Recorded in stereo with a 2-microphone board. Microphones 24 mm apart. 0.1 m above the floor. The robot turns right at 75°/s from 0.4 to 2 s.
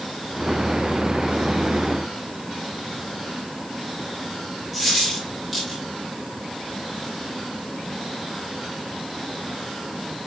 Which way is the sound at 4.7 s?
5° right (ahead or behind).